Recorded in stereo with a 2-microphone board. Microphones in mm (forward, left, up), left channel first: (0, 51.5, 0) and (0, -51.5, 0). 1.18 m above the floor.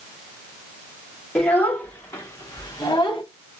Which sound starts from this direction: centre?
A child speaking, at 1.4 s.